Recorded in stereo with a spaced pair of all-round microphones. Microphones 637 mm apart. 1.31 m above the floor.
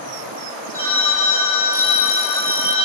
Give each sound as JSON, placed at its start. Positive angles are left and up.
{"t": 0.7, "sound": "a phone ringing", "side_deg": -70, "distance_m": 3.5}